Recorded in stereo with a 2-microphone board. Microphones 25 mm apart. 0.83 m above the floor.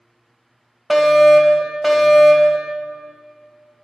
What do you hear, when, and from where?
0.9 s a fire alarm: centre (ahead or behind), 1.7 m